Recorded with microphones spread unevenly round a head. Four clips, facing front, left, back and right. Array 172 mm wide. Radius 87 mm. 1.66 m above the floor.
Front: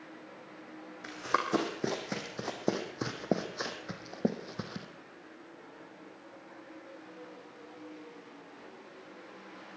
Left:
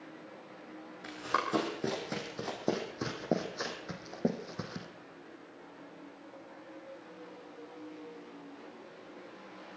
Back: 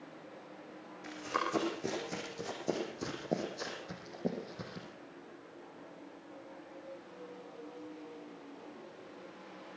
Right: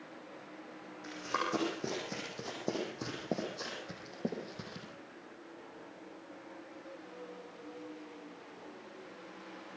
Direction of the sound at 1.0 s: 5° left.